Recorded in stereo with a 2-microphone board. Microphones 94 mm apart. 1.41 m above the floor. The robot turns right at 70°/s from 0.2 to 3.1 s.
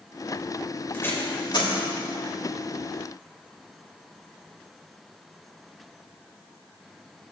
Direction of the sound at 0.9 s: 20° left (ahead or behind).